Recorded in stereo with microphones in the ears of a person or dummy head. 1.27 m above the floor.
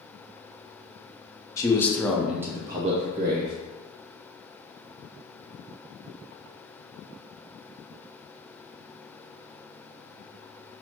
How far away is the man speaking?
About 0.7 m.